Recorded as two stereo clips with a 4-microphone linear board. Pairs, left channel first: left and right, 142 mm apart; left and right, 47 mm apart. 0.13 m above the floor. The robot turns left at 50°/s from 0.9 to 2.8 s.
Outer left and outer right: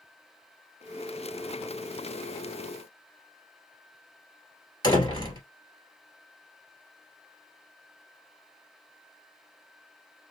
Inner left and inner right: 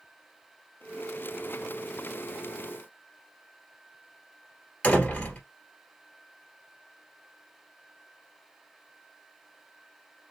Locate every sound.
4.8 s a door slam: 30° left (ahead or behind), 1.7 m